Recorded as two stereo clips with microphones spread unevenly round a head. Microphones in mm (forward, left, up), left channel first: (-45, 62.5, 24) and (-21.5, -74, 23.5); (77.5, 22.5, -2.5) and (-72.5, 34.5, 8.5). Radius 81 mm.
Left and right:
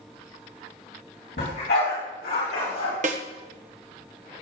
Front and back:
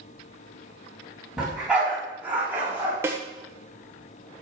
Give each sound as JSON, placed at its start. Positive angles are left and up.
{"t": 1.4, "sound": "a dog barking", "azimuth_deg": 90, "distance_m": 4.5}
{"t": 3.0, "sound": "a snare drum", "azimuth_deg": -110, "distance_m": 1.2}